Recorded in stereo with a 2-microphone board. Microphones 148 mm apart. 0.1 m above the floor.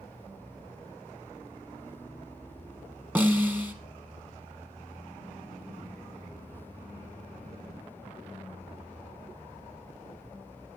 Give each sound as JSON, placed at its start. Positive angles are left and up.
{"t": 3.1, "sound": "a snare drum", "side_deg": -10, "distance_m": 1.8}